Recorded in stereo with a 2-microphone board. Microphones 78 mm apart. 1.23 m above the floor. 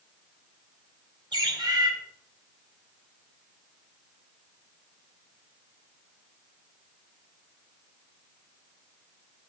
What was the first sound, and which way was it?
A bird, 80° right.